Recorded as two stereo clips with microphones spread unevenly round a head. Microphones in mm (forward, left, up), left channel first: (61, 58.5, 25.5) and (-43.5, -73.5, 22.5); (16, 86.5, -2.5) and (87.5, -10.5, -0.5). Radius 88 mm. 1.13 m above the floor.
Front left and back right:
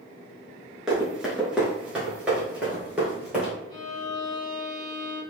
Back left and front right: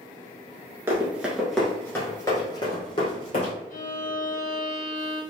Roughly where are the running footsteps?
Ahead right.